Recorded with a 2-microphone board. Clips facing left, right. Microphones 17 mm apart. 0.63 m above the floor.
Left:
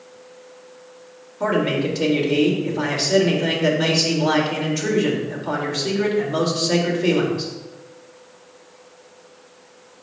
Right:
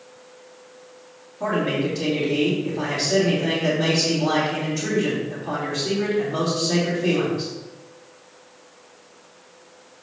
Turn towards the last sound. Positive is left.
turn(degrees=30)  # may be behind; listen again after turning